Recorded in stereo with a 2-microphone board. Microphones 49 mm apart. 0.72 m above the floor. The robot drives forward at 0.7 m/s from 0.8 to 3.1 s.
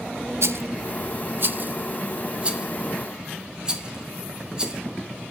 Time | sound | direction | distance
0.4 | a rattle | 65° right (ahead or behind) | 0.6 m